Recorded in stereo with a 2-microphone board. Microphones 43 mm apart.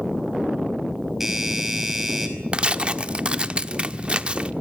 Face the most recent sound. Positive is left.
turn(degrees=-25)  # may be behind; listen again after turning